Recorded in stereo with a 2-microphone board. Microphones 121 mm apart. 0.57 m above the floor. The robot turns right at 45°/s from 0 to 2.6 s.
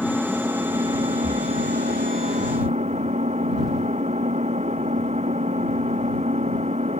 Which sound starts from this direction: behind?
An engine running, at 0.0 s.